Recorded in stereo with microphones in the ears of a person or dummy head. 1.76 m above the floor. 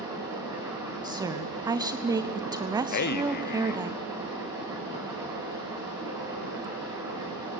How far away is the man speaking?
About 0.7 m.